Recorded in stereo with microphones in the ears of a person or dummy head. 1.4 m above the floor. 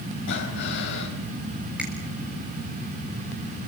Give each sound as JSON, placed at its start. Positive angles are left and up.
{"t": 0.3, "sound": "breathing", "side_deg": 55, "distance_m": 4.5}
{"t": 1.8, "sound": "a finger snap", "side_deg": -5, "distance_m": 4.0}